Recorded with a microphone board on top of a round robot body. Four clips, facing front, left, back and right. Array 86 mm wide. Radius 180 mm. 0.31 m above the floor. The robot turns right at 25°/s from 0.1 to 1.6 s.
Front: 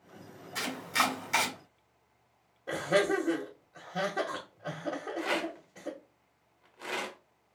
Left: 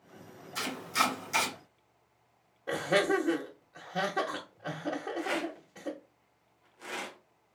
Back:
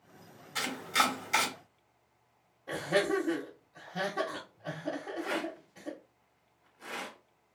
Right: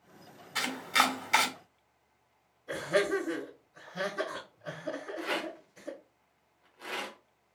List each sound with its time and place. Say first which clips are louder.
0.6 s chopping: right 2 dB, back 1 dB; 110° right, 2 m; by 1.5 s 85° right, 2 m
2.7 s laughter: left 1 dB, front 2 dB; 70° left, 1.5 m
5.2 s a rattle: left 2 dB, front 2 dB; 15° right, 1.1 m